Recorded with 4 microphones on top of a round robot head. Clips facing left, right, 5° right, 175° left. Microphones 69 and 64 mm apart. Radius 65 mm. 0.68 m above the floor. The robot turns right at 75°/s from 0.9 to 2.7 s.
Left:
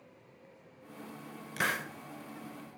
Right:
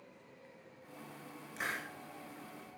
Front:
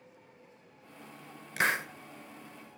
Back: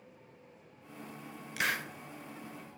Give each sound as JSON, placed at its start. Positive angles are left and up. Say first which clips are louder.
{"t": 1.6, "sound": "a hiss", "louder": "left 7 dB, front 4 dB", "azimuth_deg": 45, "distance_m": 0.6}